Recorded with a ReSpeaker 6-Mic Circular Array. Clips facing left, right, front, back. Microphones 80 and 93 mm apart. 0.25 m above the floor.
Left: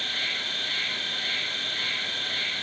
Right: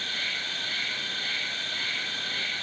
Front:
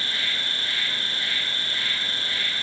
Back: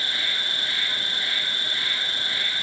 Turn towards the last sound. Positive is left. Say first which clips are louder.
# left 1 dB, even
turn(degrees=105)